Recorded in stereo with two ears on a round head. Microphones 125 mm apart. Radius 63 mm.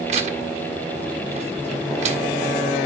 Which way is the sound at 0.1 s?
50° right (ahead or behind).